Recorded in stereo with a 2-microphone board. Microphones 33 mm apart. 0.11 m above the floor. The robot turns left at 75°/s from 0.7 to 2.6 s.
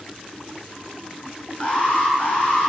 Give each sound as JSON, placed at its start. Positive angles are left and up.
{"t": 1.6, "sound": "an alarm", "azimuth_deg": 145, "distance_m": 5.5}